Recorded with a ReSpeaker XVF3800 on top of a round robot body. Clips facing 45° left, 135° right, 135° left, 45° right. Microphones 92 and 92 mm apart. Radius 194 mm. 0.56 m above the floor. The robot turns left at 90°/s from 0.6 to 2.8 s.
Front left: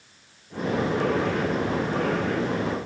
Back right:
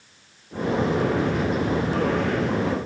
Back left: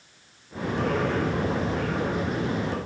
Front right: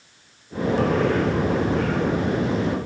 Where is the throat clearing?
I don't hear throat clearing.